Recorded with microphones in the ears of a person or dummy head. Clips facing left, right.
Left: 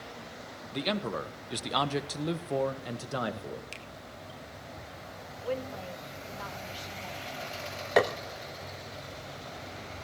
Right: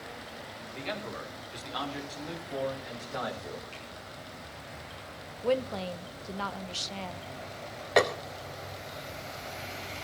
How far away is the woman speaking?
About 1.1 m.